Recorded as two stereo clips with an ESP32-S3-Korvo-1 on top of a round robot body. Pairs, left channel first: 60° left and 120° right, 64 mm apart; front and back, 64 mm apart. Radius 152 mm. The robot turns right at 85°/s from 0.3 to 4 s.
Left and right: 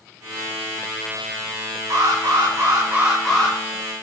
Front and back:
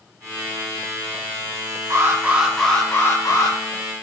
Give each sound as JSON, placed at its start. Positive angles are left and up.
{"t": 1.9, "sound": "an alarm", "azimuth_deg": -145, "distance_m": 8.0}